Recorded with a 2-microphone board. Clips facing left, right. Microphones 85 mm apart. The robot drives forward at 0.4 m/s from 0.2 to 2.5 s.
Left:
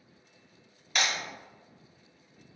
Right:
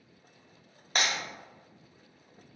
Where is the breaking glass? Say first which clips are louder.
Even; 40° right (ahead or behind), 1.3 m; by 1.1 s 45° right (ahead or behind), 1.3 m.